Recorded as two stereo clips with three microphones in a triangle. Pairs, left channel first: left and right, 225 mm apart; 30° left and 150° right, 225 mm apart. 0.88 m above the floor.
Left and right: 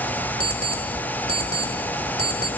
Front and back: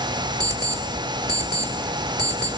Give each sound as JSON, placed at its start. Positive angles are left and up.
{"t": 0.4, "sound": "an alarm clock", "azimuth_deg": 75, "distance_m": 1.9}